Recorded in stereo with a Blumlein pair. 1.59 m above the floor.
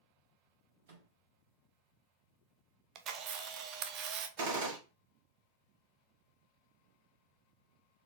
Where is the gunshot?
55° right, 1.5 m.